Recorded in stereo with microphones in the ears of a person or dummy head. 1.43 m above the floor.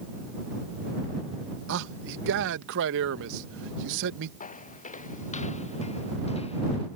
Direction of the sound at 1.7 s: 65° right (ahead or behind).